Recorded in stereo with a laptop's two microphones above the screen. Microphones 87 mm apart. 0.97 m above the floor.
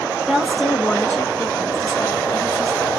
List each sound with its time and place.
0.3 s a woman speaking: 10° right (ahead or behind), 0.9 m; by 2.9 s 60° left (ahead or behind), 2 m